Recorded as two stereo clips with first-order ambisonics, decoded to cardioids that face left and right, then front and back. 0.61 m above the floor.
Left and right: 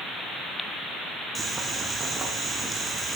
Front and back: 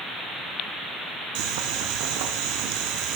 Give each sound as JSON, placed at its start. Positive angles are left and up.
{"t": 1.4, "sound": "boiling", "azimuth_deg": -170, "distance_m": 1.4}